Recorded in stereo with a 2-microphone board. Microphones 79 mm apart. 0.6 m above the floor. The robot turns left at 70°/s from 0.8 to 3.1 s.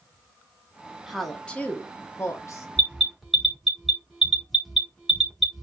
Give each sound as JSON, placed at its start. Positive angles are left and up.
{"t": 1.1, "sound": "a woman speaking", "azimuth_deg": -175, "distance_m": 0.8}
{"t": 2.8, "sound": "an alarm", "side_deg": 20, "distance_m": 1.1}